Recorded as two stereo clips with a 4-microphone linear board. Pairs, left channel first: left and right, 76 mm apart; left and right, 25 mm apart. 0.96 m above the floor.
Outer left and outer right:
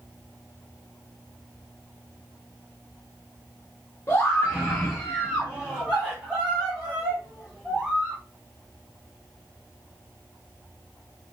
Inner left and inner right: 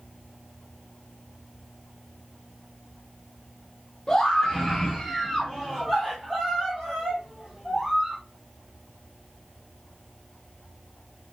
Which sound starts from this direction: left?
A scream, at 4.1 s.